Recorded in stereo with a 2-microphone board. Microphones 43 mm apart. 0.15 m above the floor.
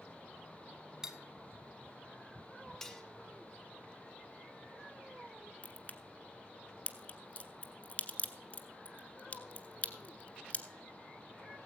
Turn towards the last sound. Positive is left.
turn(degrees=30)  # may be behind; listen again after turning